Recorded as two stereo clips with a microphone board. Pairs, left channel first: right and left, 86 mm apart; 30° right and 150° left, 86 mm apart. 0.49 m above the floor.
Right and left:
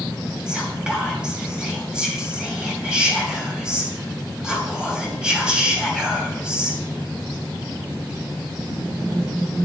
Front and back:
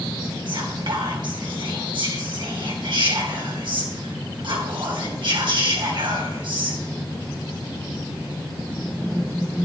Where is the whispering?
170° left, 3.5 m.